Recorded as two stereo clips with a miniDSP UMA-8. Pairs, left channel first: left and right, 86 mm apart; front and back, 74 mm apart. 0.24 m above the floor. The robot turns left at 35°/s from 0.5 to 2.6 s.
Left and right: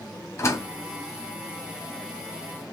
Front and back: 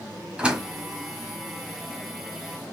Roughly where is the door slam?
Behind left.